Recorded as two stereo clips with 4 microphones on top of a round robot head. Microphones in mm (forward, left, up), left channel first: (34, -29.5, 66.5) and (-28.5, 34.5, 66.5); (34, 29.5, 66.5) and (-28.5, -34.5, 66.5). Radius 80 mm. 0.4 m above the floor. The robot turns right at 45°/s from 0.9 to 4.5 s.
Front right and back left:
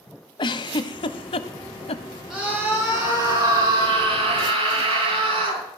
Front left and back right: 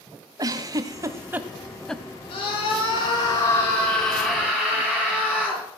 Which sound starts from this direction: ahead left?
A scream, at 2.3 s.